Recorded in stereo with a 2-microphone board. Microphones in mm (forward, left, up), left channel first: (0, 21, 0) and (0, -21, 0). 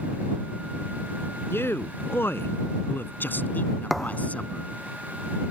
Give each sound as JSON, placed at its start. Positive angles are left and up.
{"t": 1.5, "sound": "a man speaking", "side_deg": 75}
{"t": 3.9, "sound": "a thud", "side_deg": 0}